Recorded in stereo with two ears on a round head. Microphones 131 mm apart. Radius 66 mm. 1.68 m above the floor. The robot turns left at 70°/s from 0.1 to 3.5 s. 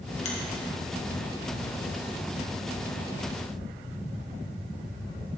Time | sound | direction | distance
0.2 | a finger snap | 50° left (ahead or behind) | 1.6 m